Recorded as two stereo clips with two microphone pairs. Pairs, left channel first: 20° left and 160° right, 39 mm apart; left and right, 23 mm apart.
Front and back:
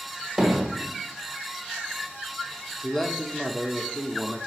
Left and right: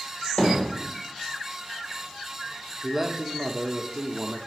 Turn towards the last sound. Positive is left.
turn(degrees=-40)